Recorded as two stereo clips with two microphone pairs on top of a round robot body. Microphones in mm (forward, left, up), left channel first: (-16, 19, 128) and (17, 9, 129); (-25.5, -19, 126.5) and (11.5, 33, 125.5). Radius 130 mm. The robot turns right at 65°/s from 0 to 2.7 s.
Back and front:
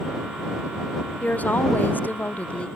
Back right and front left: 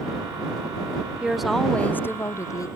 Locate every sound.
1.2 s a woman speaking: 130° left; by 2.7 s 135° right